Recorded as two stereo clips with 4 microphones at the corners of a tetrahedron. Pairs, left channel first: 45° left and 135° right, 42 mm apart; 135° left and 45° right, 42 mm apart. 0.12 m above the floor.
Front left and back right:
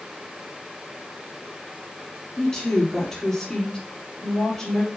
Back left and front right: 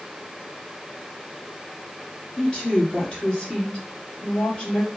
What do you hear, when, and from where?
2.4 s a woman speaking: 105° left, 1.8 m